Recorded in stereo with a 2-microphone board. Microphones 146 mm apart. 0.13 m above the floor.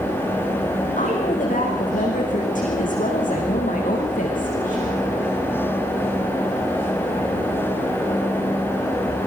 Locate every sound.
1.0 s a woman speaking: 65° left (ahead or behind), 9 m